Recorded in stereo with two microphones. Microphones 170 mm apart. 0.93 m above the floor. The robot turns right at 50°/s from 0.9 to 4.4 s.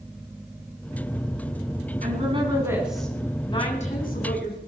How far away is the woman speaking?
About 9 m.